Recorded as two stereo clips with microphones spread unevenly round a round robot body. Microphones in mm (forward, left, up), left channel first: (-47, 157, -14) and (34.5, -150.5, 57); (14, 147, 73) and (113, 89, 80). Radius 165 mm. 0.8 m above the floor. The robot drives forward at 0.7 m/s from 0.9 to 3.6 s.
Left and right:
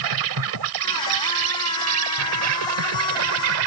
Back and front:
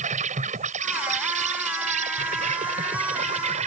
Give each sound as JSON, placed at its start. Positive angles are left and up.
{"t": 0.0, "sound": "an insect", "azimuth_deg": -45}